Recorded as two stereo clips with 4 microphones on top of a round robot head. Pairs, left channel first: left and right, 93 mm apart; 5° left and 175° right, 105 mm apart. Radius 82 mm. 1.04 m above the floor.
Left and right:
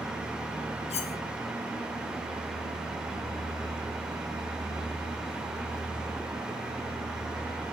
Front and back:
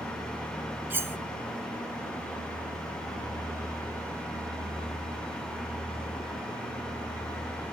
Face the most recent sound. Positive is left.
turn(degrees=115)